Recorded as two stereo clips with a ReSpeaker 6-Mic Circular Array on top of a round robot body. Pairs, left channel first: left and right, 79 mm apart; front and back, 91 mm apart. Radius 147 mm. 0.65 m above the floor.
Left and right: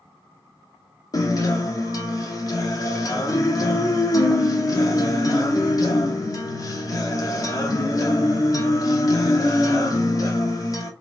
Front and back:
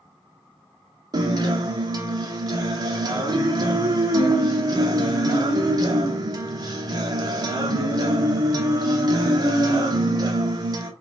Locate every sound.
1.1 s a guitar: 135° left, 1.0 m